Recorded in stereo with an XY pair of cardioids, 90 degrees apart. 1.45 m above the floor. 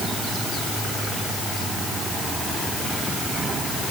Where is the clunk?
I don't hear a clunk.